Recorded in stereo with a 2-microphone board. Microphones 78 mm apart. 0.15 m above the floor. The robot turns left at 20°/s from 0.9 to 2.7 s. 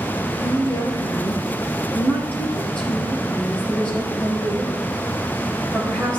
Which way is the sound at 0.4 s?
50° left.